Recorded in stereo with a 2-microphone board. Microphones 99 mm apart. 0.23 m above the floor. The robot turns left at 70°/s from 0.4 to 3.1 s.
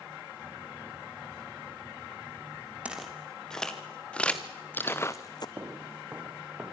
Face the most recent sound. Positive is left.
turn(degrees=-10)  # may be behind; listen again after turning